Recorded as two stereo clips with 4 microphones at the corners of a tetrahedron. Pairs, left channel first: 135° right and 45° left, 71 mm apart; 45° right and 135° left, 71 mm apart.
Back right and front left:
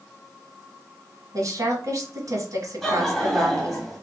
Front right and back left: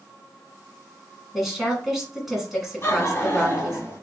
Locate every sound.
1.3 s a woman speaking: 50° left, 1.6 m
2.8 s laughter: 50° right, 1.7 m